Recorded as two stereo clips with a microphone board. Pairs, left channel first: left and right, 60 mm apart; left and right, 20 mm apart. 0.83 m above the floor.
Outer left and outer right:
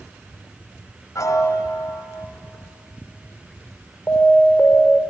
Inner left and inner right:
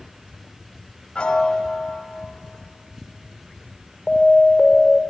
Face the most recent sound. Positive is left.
turn(degrees=40)  # may be behind; listen again after turning